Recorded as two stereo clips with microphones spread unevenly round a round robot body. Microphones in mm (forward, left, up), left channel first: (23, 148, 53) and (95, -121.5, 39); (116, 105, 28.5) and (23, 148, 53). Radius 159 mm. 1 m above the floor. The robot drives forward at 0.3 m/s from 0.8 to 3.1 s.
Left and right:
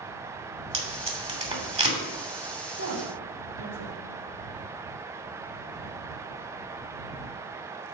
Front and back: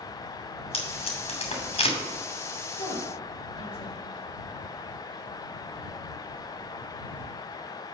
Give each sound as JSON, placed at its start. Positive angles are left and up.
{"t": 0.7, "sound": "tape being pulled", "azimuth_deg": -5, "distance_m": 3.0}
{"t": 2.7, "sound": "a woman speaking", "azimuth_deg": -65, "distance_m": 4.0}